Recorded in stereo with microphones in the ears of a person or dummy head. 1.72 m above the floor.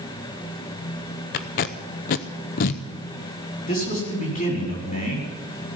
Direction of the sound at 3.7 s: 40° left (ahead or behind).